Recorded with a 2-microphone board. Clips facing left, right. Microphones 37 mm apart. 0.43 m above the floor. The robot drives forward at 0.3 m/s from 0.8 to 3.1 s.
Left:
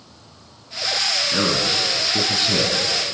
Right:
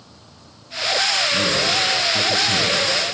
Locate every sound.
1.3 s a man speaking: 35° left (ahead or behind), 3.5 m; by 2.8 s 40° left (ahead or behind), 3 m